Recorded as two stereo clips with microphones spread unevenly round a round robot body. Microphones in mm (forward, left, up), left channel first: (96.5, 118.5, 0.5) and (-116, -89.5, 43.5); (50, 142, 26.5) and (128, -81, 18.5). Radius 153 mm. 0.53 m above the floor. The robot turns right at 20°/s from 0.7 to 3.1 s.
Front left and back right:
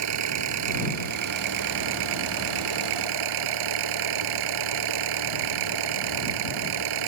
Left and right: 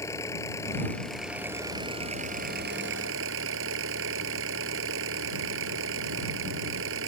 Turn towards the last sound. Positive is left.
turn(degrees=-120)